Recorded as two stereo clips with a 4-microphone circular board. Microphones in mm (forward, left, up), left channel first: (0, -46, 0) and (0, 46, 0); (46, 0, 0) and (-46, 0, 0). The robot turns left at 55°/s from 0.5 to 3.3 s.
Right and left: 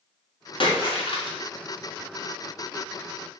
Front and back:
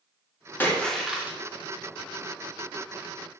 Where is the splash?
70° right, 2.5 m; by 1.4 s 110° right, 2.5 m.